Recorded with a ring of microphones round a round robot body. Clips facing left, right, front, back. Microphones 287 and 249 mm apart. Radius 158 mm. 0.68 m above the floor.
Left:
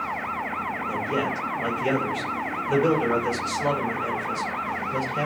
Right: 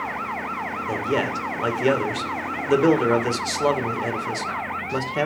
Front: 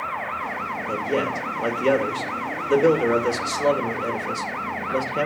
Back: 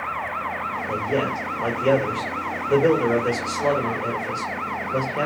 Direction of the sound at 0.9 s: 65° right.